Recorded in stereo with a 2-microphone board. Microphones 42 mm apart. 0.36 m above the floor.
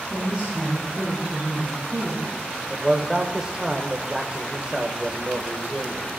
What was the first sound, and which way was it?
A woman speaking, 15° right (ahead or behind).